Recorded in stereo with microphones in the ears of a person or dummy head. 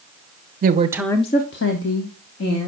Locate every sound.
0.6 s a woman speaking: 50° right (ahead or behind), 1.0 m; by 2.7 s 70° left (ahead or behind), 2.5 m